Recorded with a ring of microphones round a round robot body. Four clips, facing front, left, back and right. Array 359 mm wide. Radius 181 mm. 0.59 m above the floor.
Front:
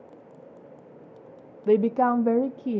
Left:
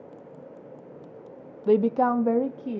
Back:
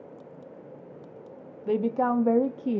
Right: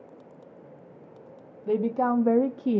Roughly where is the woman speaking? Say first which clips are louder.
Left 4 dB, front 4 dB; ahead left.